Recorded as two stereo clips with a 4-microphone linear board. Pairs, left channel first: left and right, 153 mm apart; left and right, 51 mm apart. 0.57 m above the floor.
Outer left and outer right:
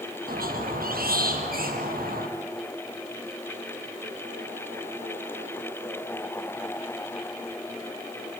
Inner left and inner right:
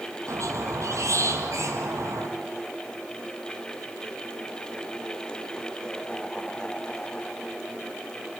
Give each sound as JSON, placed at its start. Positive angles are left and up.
{"t": 0.3, "sound": "a squeak", "side_deg": -75, "distance_m": 3.5}